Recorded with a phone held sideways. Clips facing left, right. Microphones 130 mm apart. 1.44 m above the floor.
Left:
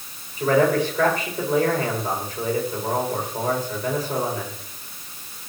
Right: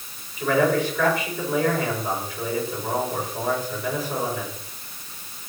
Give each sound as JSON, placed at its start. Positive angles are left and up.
{"t": 0.4, "sound": "a man speaking", "side_deg": 40, "distance_m": 7.5}